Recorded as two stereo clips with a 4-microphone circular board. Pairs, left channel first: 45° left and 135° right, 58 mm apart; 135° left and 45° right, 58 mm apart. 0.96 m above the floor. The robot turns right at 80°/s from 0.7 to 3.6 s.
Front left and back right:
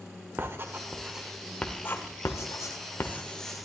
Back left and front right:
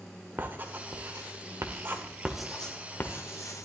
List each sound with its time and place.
0.4 s writing: 95° right, 0.9 m; by 3.7 s 135° left, 0.9 m